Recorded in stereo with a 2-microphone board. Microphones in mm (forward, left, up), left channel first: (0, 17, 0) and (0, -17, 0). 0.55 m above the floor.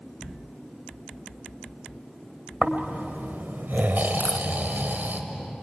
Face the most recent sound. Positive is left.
turn(degrees=45)  # may be behind; listen again after turning